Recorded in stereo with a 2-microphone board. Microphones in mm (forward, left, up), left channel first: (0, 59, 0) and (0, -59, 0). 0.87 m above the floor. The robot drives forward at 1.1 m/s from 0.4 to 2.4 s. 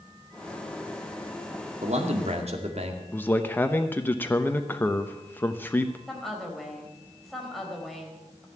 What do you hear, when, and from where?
1.8 s a man speaking: 70° right (ahead or behind), 2 m; by 3.0 s 60° right (ahead or behind), 2 m
3.1 s a man speaking: 15° left (ahead or behind), 0.9 m
6.1 s a woman speaking: centre (ahead or behind), 4 m